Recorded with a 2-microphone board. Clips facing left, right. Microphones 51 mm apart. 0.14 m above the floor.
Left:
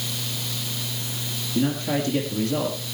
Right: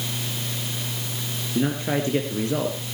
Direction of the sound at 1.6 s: 30° right (ahead or behind).